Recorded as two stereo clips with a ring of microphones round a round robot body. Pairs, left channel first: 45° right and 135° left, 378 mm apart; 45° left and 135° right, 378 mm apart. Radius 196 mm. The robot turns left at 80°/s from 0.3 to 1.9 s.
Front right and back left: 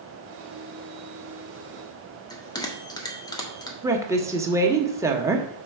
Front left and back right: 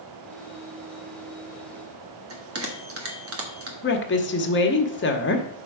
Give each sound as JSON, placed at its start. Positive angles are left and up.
{"t": 2.3, "sound": "a bell", "azimuth_deg": -120, "distance_m": 1.5}
{"t": 3.8, "sound": "a woman speaking", "azimuth_deg": 60, "distance_m": 1.2}